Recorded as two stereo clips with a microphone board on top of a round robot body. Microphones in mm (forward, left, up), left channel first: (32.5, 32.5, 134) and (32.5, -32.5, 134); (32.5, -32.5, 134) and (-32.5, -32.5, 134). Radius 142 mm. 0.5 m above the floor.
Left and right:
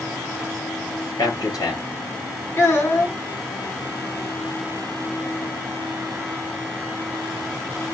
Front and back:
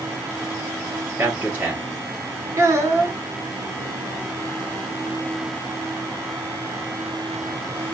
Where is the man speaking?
115° left, 3 m.